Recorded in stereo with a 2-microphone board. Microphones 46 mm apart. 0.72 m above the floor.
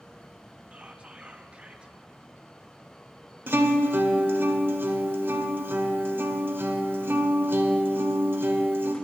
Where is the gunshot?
I don't hear a gunshot.